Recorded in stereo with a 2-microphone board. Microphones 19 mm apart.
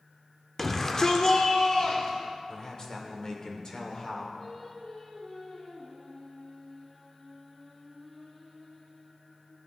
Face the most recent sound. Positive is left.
turn(degrees=40)  # may be behind; listen again after turning